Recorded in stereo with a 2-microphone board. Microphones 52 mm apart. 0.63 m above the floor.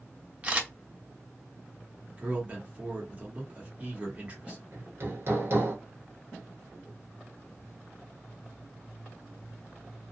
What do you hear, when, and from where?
0.4 s a camera shutter: 25° right (ahead or behind), 0.7 m
2.1 s a man speaking: 25° right (ahead or behind), 1.4 m
4.7 s hammering: 50° right (ahead or behind), 0.8 m